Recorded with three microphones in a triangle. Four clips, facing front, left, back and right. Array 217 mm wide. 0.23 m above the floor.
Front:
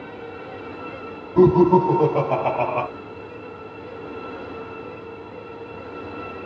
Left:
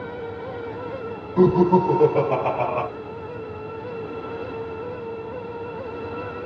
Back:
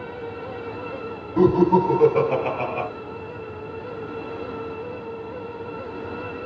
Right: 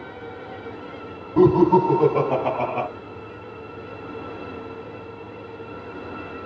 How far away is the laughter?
About 1.3 m.